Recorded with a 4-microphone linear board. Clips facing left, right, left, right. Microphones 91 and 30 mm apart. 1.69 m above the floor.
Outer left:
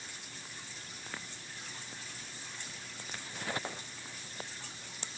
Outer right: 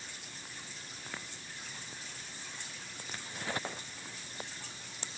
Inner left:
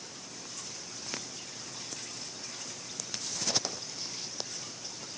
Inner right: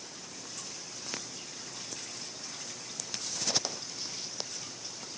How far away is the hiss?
No hiss in this recording.